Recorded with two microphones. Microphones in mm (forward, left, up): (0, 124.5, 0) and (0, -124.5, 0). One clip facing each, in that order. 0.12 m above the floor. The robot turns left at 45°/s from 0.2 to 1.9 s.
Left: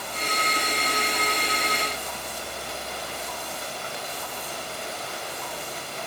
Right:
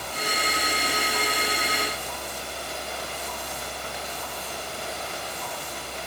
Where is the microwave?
I don't hear a microwave.